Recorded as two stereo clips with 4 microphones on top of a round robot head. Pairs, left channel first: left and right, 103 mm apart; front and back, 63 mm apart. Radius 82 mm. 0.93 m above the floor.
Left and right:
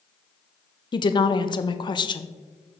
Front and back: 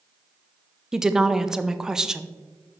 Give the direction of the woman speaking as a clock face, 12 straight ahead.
9 o'clock.